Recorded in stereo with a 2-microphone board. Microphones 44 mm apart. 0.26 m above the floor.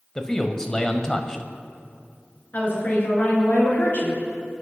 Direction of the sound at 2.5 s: 45° left (ahead or behind).